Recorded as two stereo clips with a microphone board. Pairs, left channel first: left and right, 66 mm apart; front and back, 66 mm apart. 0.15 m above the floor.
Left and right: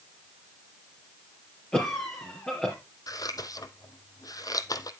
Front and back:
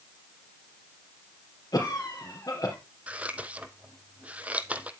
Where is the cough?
20° left, 3 m.